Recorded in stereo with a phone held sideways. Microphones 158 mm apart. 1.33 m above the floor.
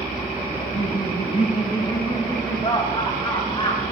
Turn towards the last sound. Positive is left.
turn(degrees=30)  # may be behind; listen again after turning